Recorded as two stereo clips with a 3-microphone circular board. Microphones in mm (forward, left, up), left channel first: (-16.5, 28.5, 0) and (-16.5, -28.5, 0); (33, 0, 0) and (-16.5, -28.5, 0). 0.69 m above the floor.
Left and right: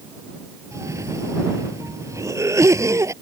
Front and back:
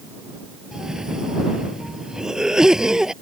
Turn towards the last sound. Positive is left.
turn(degrees=-70)